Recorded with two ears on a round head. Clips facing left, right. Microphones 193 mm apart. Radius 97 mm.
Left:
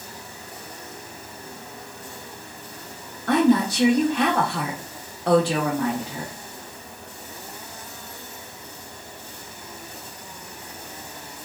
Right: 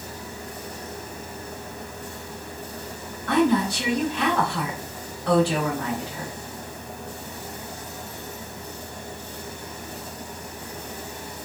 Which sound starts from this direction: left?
A woman speaking, at 3.3 s.